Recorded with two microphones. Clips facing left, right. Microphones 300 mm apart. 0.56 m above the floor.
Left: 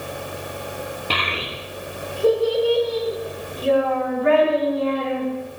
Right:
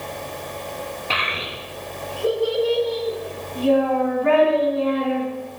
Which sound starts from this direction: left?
A child speaking, at 1.1 s.